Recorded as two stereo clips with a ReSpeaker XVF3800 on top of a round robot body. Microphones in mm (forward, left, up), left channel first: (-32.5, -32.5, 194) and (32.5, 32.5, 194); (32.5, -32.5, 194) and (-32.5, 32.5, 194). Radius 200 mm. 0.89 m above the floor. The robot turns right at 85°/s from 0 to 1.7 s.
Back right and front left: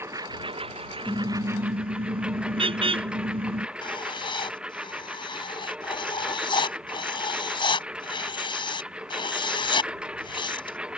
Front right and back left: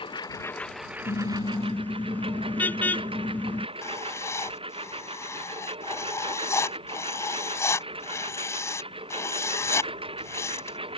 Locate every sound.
0.0 s a lawn mower: 20° right; by 11.0 s 125° left
1.1 s a car horn: 30° right; by 3.7 s 25° left
3.8 s writing: 105° right